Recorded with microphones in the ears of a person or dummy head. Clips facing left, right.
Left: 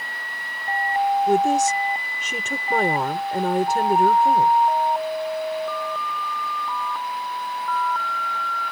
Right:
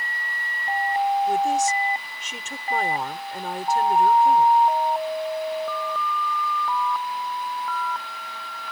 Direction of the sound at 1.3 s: 60° left (ahead or behind).